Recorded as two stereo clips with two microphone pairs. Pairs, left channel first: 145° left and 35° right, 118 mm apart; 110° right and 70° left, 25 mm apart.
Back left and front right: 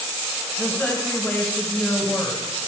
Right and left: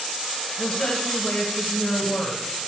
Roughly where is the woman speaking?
Behind right.